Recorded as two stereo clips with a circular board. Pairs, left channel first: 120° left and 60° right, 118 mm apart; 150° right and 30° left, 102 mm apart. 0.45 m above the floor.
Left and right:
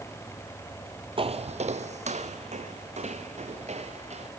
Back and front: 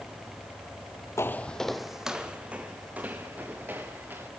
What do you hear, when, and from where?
1.2 s footsteps: 90° right, 0.8 m; by 4.3 s 40° right, 4 m